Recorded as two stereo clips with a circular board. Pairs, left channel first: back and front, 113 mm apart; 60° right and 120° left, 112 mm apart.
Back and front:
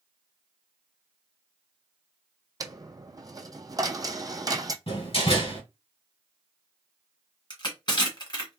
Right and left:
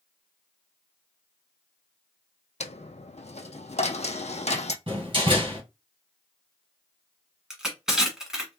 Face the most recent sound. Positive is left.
turn(degrees=-155)